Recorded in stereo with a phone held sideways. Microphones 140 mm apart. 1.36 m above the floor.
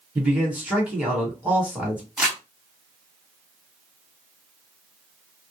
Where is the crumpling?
5° right (ahead or behind), 1.5 m.